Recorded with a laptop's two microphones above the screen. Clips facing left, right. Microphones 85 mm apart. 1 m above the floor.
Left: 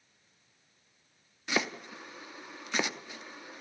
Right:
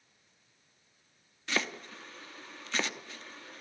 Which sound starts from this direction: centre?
Chopping, at 1.5 s.